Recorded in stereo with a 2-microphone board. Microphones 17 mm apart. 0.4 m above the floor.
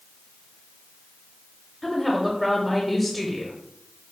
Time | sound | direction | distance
1.8 | a woman speaking | 5° left (ahead or behind) | 0.8 m